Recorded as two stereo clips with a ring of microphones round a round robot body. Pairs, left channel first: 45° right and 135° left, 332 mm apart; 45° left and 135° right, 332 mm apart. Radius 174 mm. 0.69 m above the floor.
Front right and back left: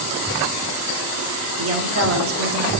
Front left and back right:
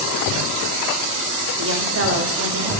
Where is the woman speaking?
Straight behind, 1.9 m.